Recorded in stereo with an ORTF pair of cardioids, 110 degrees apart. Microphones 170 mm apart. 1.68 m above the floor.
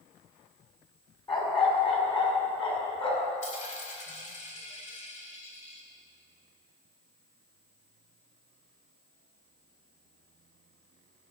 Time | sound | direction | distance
1.3 | a dog barking | 25° left | 4.5 m
3.4 | a dropped coin | 45° left | 4 m